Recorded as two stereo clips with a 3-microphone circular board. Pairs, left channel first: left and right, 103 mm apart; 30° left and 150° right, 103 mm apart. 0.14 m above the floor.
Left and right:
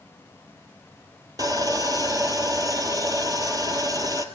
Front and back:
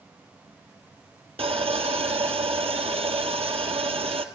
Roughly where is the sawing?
Behind right.